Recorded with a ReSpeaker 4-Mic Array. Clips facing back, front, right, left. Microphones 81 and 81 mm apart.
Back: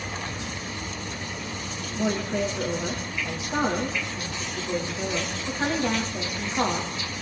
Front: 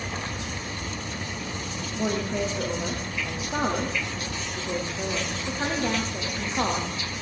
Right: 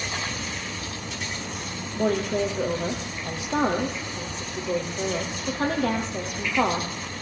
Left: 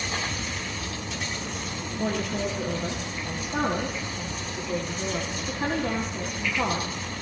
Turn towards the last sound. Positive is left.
turn(degrees=-90)